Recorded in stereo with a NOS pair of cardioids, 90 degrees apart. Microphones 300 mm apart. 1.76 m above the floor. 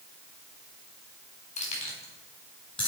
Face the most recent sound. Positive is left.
turn(degrees=15)